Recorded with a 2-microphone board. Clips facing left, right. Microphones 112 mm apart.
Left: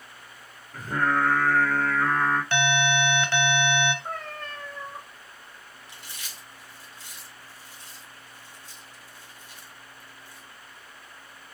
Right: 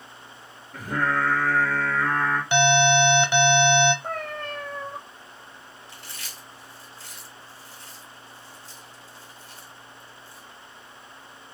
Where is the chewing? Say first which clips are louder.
Even; 20° left (ahead or behind), 2 m.